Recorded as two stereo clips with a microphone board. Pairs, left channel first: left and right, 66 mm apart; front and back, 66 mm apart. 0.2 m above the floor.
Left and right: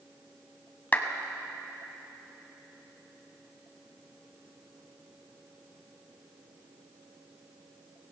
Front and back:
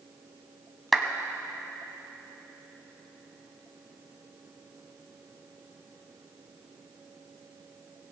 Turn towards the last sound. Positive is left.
turn(degrees=90)